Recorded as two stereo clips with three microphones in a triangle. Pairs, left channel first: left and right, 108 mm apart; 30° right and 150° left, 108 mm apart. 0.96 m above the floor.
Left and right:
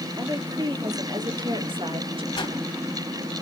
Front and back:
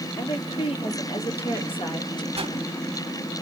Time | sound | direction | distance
0.2 | a woman speaking | 40° right | 2.5 m
2.4 | a whoosh | 125° left | 2 m